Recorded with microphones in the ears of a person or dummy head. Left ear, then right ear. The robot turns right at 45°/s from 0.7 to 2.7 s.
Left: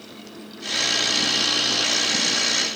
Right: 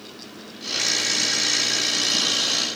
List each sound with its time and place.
Only background noise.